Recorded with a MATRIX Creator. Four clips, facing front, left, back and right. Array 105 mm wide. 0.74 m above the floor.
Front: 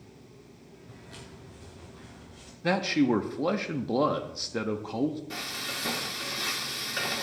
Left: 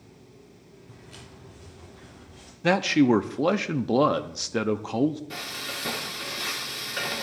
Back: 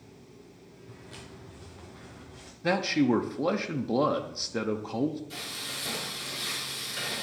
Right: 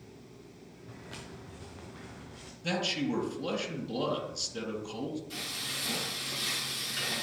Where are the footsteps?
90° right, 4 m; by 2.5 s 120° right, 5 m.